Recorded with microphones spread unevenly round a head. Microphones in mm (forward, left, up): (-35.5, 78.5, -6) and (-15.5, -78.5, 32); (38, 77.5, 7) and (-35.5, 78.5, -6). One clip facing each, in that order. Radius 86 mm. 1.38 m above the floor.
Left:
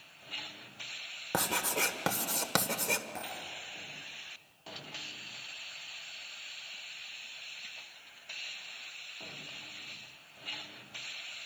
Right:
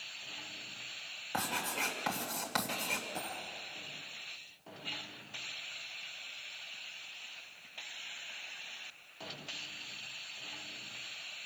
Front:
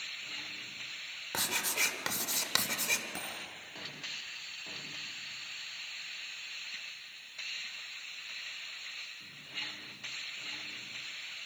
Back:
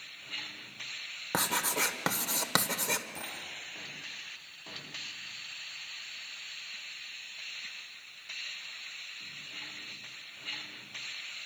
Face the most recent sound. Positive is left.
turn(degrees=15)